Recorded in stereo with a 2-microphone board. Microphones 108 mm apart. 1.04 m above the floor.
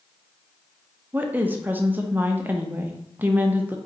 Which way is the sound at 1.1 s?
15° right (ahead or behind).